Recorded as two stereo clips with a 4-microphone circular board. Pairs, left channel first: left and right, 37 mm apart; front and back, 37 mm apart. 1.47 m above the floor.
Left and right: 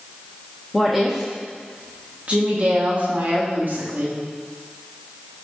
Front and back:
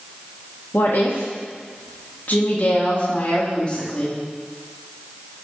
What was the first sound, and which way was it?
A woman speaking, 5° left.